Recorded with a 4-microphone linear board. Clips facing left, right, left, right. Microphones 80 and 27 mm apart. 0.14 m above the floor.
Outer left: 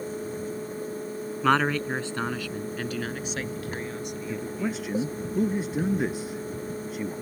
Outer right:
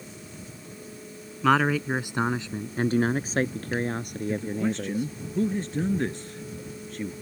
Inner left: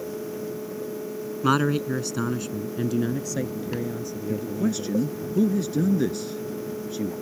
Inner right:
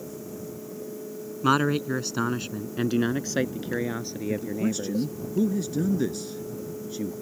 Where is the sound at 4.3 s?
10° left (ahead or behind).